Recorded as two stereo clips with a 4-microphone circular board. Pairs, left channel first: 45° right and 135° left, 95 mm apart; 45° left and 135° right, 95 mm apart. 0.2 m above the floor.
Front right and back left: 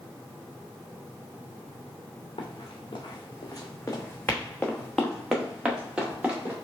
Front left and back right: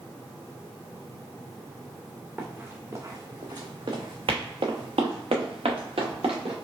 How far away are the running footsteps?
About 1.2 m.